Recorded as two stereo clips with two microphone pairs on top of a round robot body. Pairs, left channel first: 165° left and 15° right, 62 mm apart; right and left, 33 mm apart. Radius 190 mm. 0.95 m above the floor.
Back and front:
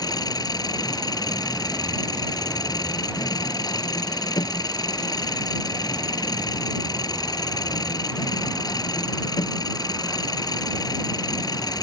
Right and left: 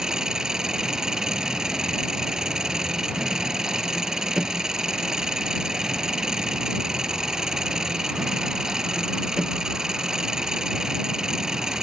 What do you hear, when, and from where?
0.0 s an engine running: 165° left